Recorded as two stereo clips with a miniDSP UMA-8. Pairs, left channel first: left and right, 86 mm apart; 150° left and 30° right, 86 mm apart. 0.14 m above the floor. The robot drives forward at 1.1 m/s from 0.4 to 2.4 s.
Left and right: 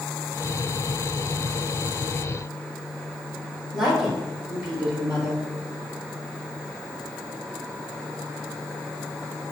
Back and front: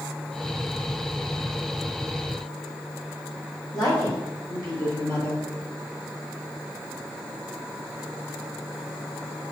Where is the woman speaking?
175° right, 3 m.